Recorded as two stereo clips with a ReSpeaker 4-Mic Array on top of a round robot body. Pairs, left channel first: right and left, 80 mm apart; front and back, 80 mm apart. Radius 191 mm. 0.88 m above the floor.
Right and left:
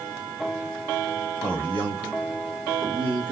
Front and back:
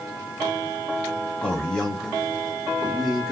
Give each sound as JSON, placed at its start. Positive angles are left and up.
{"t": 1.4, "sound": "a man speaking", "azimuth_deg": 75, "distance_m": 2.5}